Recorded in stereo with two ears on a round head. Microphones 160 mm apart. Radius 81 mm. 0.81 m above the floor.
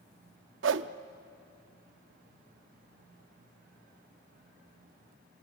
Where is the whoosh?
70° right (ahead or behind), 0.7 m.